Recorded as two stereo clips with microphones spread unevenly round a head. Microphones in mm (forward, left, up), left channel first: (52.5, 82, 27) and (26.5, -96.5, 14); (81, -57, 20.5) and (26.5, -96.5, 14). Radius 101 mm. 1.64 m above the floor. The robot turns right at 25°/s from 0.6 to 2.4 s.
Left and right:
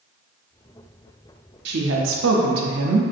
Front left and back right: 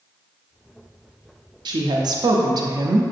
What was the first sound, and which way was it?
A woman speaking, 135° right.